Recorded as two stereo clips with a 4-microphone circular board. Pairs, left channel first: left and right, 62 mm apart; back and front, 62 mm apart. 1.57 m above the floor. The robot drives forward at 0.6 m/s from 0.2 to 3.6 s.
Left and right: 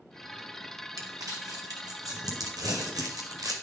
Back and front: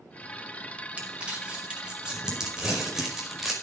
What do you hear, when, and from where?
1.0 s crumpling: 70° right, 5 m; by 3.5 s 90° right, 5 m